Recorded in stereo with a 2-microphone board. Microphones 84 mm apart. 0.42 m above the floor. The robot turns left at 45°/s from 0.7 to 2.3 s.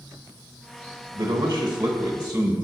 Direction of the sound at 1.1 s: 110° right.